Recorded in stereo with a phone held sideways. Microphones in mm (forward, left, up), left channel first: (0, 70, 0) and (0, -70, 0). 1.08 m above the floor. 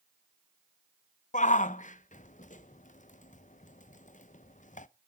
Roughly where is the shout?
Left.